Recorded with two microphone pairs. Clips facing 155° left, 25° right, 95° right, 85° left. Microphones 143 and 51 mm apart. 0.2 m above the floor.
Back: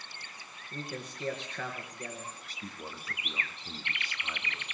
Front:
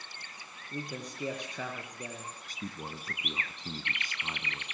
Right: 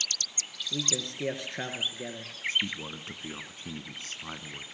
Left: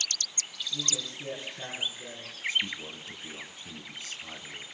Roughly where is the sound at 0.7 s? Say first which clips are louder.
Front 1 dB, right 4 dB; right.